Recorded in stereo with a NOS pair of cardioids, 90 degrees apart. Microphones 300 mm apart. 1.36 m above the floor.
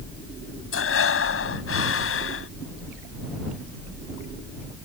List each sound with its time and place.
0.7 s breathing: 45° left